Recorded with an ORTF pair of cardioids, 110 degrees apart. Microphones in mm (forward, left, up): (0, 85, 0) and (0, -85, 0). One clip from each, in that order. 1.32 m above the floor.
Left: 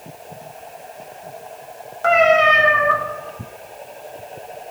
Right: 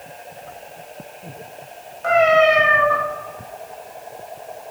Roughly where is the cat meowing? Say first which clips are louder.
Left 1 dB; ahead left.